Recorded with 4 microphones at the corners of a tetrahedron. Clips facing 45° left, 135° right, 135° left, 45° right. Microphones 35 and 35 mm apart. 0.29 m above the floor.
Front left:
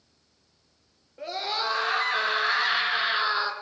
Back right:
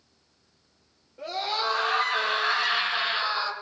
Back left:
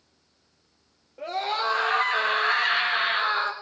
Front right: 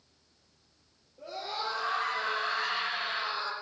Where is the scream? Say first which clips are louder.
Back right 1 dB, back left 9 dB; 115° left, 5 m; by 3.5 s 105° left, 3.5 m.